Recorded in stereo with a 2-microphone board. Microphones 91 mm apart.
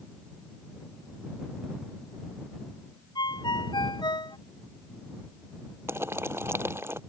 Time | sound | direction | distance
3.1 | a ringtone | 55° left (ahead or behind) | ?
5.9 | boiling | 30° right (ahead or behind) | ?